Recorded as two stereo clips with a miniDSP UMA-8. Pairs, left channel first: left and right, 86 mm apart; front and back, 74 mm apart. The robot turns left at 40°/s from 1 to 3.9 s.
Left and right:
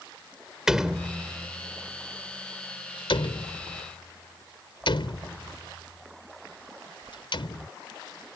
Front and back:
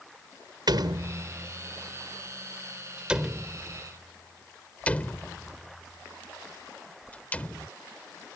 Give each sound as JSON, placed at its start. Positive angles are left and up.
{"t": 0.7, "sound": "a door slam", "azimuth_deg": -175}